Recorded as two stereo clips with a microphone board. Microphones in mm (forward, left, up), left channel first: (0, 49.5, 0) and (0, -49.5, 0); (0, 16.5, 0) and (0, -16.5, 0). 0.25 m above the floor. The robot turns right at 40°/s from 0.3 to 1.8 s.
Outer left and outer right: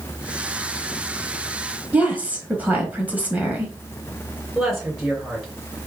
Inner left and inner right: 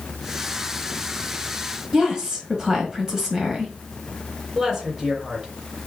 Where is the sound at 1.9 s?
20° right (ahead or behind), 1.3 m.